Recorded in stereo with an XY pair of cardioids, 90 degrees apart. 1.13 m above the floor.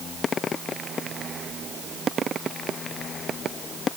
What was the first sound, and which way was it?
Only background noise.